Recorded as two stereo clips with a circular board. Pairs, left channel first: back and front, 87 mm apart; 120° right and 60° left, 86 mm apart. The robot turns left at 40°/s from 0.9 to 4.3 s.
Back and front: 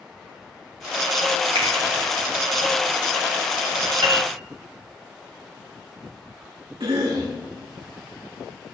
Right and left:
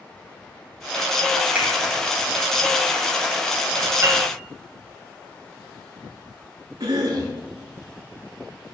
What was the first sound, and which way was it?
A finger snap, 15° right.